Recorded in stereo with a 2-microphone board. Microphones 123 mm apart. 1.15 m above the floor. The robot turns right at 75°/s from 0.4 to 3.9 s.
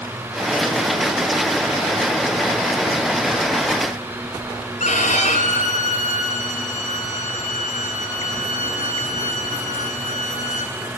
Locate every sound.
4.8 s a violin: 75° left (ahead or behind), 3 m